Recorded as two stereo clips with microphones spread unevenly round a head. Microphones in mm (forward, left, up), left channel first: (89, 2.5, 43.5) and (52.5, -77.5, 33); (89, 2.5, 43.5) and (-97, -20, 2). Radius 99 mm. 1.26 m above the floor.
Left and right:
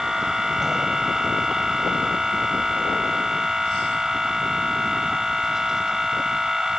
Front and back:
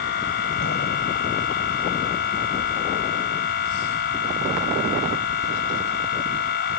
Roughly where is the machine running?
Ahead right.